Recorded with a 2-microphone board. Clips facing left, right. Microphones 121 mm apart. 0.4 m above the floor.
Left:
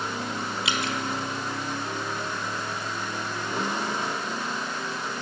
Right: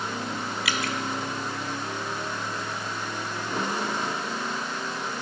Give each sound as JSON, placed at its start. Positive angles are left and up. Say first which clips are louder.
{"t": 0.7, "sound": "dripping", "louder": "even", "side_deg": 25, "distance_m": 1.2}